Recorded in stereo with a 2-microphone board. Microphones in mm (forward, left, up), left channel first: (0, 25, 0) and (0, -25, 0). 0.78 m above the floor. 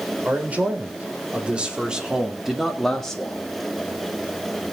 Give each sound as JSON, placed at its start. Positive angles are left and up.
{"t": 0.2, "sound": "a man speaking", "side_deg": -35, "distance_m": 3.5}